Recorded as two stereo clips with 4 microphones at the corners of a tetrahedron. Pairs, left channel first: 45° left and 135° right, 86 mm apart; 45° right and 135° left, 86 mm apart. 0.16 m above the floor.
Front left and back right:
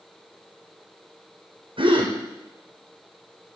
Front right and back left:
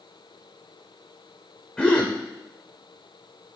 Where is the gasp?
125° right, 3.5 m.